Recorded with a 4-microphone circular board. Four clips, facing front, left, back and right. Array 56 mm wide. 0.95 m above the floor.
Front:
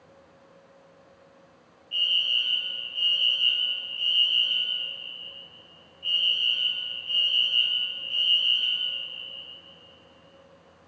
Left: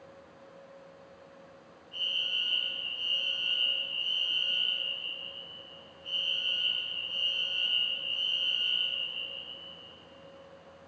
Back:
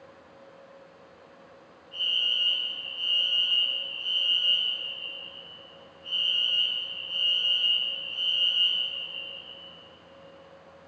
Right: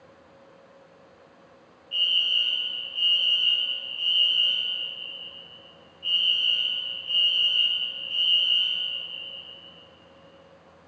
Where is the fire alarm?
50° right, 7.5 m.